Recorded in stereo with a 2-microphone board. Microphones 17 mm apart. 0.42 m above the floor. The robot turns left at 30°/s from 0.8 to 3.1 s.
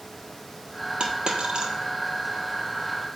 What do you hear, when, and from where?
1.0 s a dropped coin: 75° right (ahead or behind), 1.2 m; by 1.7 s 65° right (ahead or behind), 1.2 m